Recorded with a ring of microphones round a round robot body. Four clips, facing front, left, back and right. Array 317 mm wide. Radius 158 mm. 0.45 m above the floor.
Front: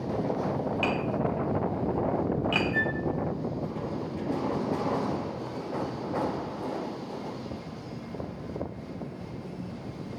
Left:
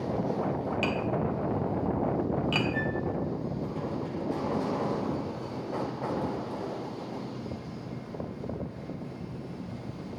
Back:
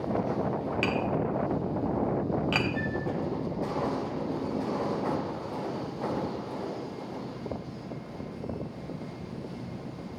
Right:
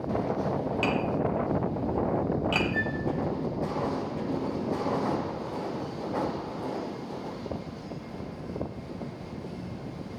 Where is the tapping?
170° left, 1.1 m.